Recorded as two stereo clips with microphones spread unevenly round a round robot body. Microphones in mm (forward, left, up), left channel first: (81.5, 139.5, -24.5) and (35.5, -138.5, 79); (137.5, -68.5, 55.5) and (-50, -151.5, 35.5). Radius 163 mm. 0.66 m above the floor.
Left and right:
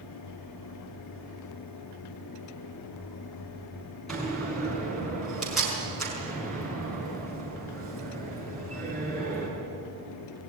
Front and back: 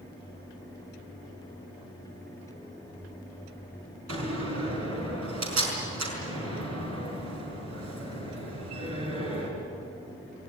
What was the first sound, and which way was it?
A door slam, 170° left.